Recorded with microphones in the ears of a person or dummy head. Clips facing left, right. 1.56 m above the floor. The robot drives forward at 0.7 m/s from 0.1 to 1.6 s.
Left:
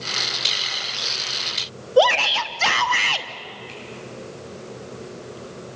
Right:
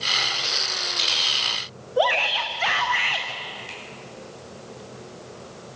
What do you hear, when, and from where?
2.0 s a shout: 55° left (ahead or behind), 0.9 m
3.7 s a finger snap: 85° right, 9 m